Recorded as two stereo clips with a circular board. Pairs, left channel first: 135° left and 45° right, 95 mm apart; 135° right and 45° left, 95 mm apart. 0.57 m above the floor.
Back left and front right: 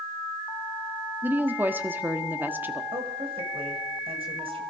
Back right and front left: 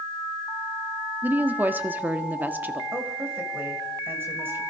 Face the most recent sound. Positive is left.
turn(degrees=-25)